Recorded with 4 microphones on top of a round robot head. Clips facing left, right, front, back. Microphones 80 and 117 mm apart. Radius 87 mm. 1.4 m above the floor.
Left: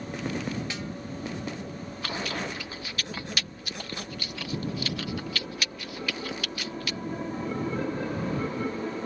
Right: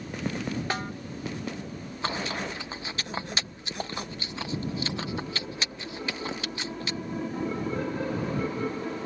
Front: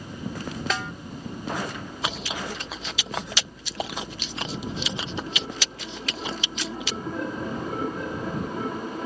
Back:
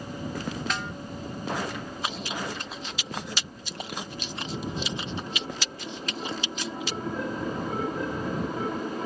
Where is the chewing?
20° right.